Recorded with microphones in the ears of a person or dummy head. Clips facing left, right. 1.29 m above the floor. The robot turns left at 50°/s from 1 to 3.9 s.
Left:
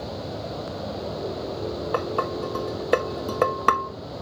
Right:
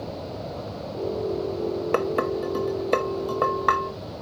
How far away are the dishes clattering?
About 0.8 m.